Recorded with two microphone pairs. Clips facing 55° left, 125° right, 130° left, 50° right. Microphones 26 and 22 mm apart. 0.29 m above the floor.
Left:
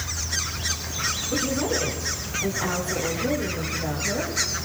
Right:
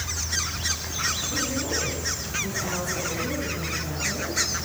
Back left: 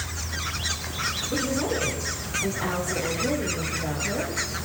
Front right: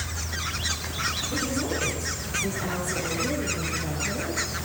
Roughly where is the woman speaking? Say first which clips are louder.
Left 3 dB, back left 2 dB; left.